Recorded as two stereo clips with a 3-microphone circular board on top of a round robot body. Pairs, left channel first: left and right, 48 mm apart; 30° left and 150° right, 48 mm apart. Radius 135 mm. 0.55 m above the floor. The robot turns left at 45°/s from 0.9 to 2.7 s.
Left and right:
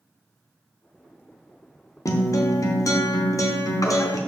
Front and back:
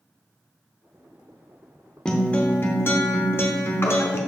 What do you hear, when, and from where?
2.0 s a guitar: 110° left, 0.7 m; by 4.2 s 80° left, 0.7 m